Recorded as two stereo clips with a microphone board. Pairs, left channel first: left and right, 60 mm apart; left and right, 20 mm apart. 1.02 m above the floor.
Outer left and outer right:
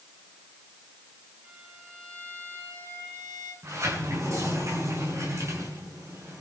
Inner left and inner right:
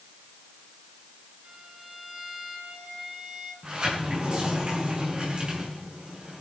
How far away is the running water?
No running water in this recording.